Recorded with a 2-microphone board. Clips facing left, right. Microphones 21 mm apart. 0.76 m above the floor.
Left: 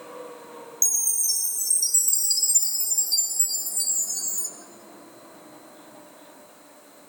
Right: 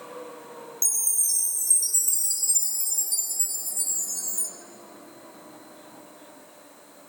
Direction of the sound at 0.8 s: 35° left (ahead or behind).